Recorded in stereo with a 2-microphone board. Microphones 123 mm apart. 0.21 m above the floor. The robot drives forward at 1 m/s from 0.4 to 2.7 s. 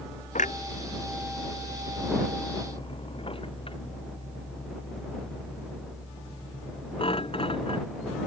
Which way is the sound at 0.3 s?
85° left.